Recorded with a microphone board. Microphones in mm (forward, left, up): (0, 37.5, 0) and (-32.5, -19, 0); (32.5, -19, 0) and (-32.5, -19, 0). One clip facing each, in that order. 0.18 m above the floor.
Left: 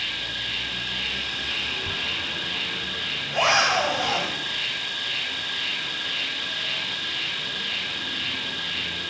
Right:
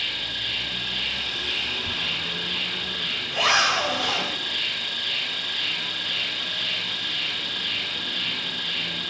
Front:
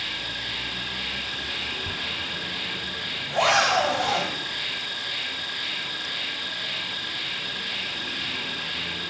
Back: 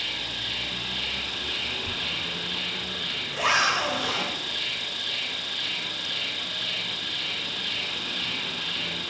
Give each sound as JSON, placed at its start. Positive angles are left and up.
{"t": 0.0, "sound": "an insect", "azimuth_deg": -5, "distance_m": 3.0}
{"t": 1.9, "sound": "a zipper", "azimuth_deg": 5, "distance_m": 3.0}